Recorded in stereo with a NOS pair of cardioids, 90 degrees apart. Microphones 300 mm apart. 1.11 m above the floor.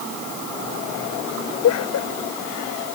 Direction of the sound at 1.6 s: 65° left.